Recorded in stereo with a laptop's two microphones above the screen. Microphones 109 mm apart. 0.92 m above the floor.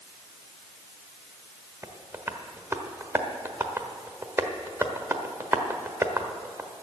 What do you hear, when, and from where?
1.8 s tapping: 20° right (ahead or behind), 1.2 m